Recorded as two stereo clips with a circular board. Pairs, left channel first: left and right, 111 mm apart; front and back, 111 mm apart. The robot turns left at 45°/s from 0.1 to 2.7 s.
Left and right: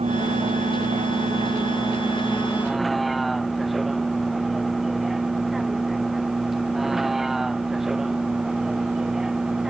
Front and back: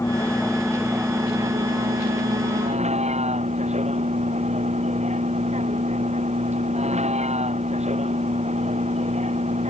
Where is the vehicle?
65° right; by 9.7 s 175° right.